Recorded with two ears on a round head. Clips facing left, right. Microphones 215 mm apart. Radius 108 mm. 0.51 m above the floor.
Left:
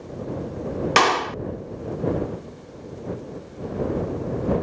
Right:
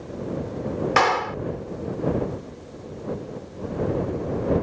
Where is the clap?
50° left (ahead or behind).